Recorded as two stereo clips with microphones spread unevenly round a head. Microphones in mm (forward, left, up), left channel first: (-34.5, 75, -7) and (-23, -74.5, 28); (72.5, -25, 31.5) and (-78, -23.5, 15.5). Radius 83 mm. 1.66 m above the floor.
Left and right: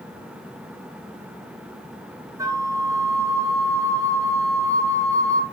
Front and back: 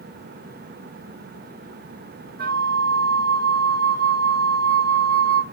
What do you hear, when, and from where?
2.4 s a flute: 155° right, 1.5 m